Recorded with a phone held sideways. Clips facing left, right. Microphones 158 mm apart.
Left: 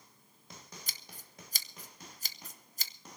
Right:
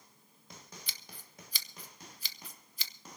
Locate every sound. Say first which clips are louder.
0.9 s scissors: even; 45° left (ahead or behind), 0.9 m